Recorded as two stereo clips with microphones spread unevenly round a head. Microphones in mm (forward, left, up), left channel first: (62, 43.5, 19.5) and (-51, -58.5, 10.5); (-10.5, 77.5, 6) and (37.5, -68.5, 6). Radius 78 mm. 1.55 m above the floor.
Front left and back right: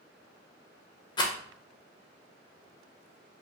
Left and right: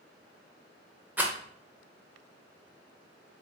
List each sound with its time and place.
1.2 s a rattle: straight ahead, 0.7 m